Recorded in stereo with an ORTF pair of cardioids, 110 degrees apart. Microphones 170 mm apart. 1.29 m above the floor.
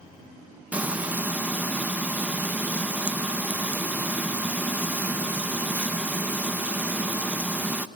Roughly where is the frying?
Ahead.